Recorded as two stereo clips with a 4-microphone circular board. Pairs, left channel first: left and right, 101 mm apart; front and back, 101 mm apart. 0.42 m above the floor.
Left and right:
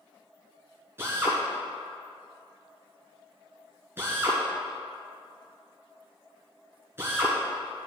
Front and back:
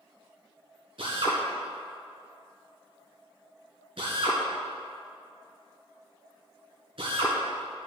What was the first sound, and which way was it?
A drill, 155° right.